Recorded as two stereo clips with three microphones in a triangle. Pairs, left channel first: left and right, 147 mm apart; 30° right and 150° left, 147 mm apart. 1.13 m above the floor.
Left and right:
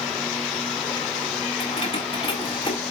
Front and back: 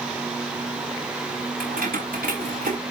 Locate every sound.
1.6 s keys jangling: 135° left, 4.5 m; by 2.8 s 145° left, 3.5 m